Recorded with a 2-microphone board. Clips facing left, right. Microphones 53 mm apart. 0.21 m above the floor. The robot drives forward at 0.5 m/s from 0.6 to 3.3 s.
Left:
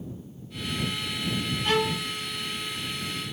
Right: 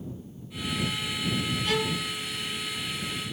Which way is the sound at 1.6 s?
45° left (ahead or behind).